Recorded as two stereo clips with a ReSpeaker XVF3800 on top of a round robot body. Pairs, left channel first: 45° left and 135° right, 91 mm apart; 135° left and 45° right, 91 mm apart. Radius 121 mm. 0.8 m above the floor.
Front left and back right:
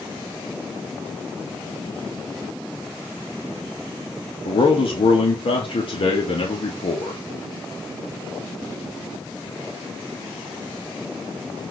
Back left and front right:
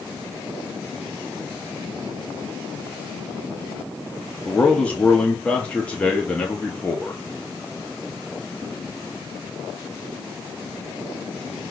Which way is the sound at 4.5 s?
60° left.